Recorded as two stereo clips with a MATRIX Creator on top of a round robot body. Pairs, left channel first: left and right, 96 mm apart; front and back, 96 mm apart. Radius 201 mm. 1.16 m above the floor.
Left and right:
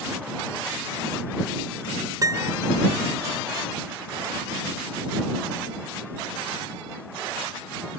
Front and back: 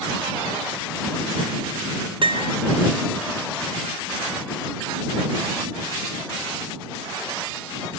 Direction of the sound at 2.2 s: 145° right.